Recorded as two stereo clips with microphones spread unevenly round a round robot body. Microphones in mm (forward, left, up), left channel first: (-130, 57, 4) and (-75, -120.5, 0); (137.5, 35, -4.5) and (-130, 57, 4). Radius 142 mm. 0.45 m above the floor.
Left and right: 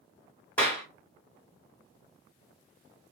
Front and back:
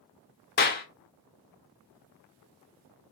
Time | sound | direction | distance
0.6 | a clap | 25° left | 0.7 m